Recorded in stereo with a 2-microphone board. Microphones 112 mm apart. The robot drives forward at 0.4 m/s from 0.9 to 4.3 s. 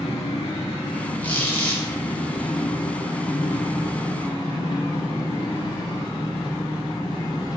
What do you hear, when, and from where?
0.0 s an engine running: 60° left (ahead or behind), 2.5 m; by 7.6 s 40° left (ahead or behind), 3.5 m
1.2 s a squeak: 20° left (ahead or behind), 2 m; by 1.8 s 15° left (ahead or behind), 2.5 m